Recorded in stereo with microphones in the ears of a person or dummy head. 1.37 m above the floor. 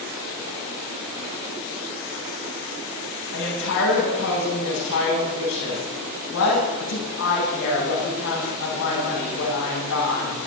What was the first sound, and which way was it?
A woman speaking, 70° left (ahead or behind).